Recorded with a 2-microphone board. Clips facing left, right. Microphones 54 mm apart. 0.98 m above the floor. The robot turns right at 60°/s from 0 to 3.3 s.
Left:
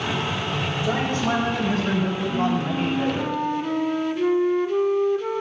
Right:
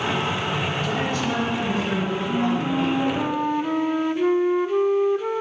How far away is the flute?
About 0.7 m.